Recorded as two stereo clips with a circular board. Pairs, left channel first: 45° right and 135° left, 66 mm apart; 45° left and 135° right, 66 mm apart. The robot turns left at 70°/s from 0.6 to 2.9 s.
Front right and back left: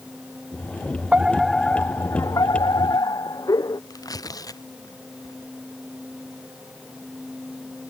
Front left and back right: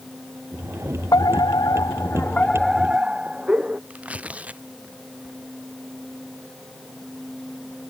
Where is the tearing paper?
65° right.